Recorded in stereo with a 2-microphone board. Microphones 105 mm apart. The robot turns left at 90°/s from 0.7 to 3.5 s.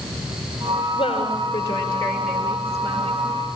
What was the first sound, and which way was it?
A woman speaking, 130° left.